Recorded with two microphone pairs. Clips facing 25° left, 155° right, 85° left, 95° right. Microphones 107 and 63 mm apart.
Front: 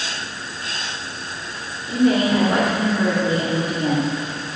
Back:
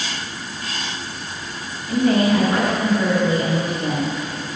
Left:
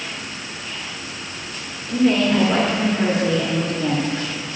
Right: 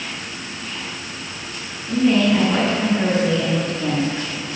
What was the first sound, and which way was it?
A woman speaking, 45° left.